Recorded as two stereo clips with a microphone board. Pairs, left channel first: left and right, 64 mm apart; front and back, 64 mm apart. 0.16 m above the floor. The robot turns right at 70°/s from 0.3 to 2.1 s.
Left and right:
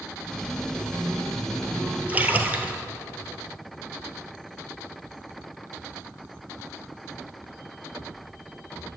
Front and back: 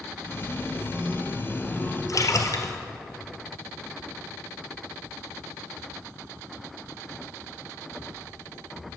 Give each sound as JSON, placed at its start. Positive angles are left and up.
{"t": 0.7, "sound": "a chime", "azimuth_deg": -135, "distance_m": 1.9}
{"t": 2.1, "sound": "a splash", "azimuth_deg": -25, "distance_m": 0.8}